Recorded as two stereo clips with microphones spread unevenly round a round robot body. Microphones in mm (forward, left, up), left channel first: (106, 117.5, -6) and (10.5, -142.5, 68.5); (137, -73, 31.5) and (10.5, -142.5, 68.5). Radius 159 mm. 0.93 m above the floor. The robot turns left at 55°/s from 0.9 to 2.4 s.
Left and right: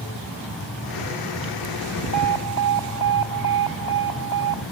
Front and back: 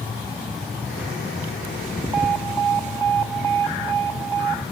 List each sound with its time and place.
2.1 s an alarm: 125° left; by 4.6 s 110° left